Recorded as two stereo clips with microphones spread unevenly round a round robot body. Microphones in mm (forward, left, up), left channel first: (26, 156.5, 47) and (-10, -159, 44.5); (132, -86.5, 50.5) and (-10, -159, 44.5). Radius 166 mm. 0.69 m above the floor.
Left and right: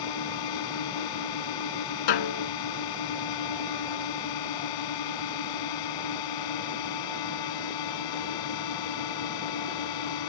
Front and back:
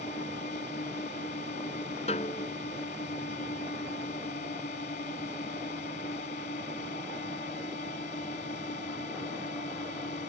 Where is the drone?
90° left.